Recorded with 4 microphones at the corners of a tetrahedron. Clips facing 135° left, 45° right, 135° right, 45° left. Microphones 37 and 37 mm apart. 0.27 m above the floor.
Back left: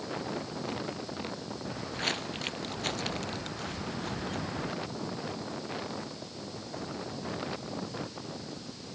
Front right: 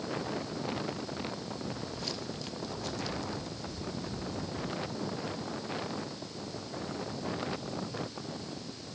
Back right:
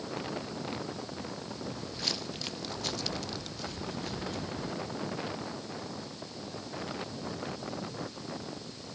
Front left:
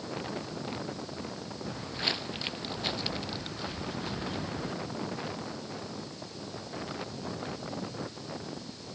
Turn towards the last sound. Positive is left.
turn(degrees=115)